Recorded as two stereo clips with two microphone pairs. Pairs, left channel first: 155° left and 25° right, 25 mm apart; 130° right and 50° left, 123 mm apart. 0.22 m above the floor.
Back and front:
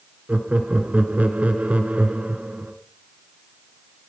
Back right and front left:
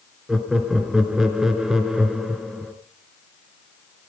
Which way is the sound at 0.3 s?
35° right.